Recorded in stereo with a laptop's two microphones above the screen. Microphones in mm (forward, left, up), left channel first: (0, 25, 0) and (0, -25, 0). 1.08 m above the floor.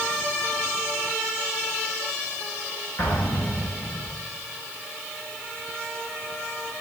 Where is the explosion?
60° left (ahead or behind), 9.5 m.